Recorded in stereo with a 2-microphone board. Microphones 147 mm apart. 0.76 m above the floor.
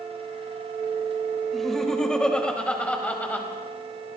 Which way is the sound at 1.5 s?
Centre (ahead or behind).